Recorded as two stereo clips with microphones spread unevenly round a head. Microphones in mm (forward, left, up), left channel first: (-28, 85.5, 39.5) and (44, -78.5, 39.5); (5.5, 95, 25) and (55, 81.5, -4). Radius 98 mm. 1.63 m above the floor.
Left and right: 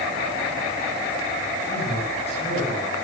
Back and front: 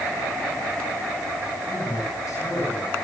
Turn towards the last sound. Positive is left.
turn(degrees=170)